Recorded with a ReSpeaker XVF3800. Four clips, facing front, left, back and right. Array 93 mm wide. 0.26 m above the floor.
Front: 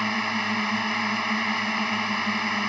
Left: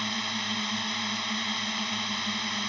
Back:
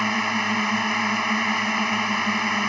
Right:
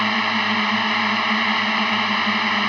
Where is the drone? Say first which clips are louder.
Right 13 dB, back 3 dB; 105° right.